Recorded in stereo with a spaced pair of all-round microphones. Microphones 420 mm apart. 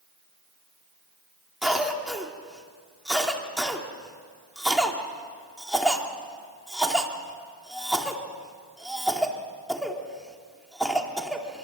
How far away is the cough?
About 2.5 m.